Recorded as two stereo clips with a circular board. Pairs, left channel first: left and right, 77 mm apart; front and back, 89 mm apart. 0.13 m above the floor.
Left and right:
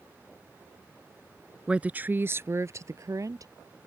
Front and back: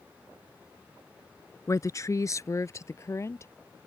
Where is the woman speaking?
20° right; by 3.5 s 55° right.